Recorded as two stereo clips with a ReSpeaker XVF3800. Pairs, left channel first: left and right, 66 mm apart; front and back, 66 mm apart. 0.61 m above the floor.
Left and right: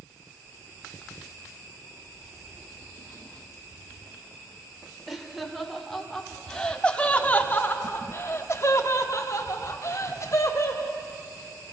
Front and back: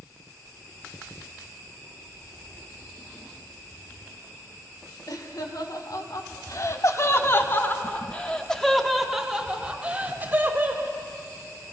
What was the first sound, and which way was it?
Laughter, 5° right.